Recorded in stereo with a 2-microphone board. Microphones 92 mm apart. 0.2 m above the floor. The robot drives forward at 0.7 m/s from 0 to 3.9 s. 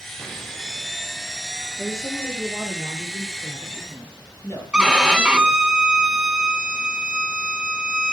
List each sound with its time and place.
1.8 s a woman speaking: 35° left (ahead or behind), 4.5 m; by 5.6 s 25° left (ahead or behind), 6 m
4.7 s a violin: 5° right (ahead or behind), 1.0 m